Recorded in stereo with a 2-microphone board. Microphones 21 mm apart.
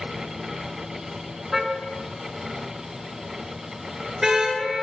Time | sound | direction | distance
1.5 | a car horn | 10° right (ahead or behind) | 5 m